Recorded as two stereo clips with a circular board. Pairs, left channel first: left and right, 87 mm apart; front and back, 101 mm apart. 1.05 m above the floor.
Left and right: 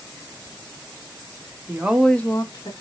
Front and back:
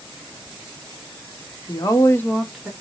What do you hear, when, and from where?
1.7 s a woman speaking: 35° right, 0.8 m; by 2.7 s 95° left, 0.8 m